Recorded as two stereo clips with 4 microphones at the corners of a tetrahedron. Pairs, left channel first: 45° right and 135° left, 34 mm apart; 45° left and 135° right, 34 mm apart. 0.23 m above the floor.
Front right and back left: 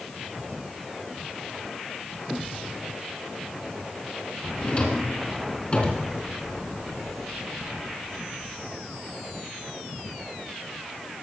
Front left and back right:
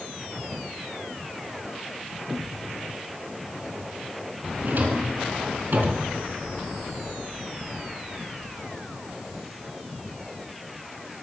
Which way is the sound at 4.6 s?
100° right.